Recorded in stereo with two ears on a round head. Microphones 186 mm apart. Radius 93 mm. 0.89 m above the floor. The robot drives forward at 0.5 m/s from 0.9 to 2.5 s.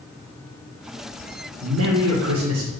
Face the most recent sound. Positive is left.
turn(degrees=-70)  # may be behind; listen again after turning